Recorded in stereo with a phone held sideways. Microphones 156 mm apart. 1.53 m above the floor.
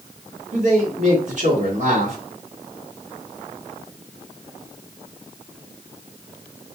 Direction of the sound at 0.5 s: 50° right (ahead or behind).